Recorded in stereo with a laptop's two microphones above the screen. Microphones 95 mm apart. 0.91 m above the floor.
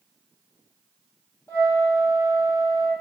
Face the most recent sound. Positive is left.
turn(degrees=35)  # may be behind; listen again after turning